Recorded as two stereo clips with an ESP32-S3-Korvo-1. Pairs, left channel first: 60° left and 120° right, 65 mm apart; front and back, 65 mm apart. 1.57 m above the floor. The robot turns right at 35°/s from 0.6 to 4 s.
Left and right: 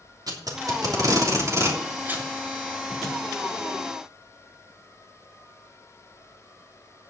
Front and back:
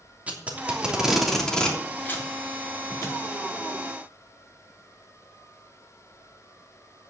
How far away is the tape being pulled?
About 3 m.